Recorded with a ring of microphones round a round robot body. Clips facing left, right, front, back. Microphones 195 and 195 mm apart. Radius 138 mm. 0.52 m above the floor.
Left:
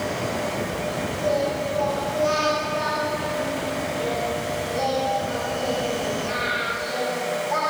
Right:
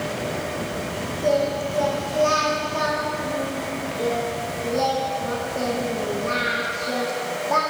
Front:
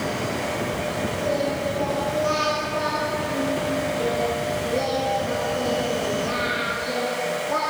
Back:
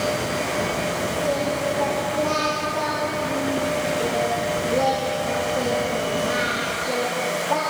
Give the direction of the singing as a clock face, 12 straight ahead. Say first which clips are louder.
Right 3 dB, even; 2 o'clock.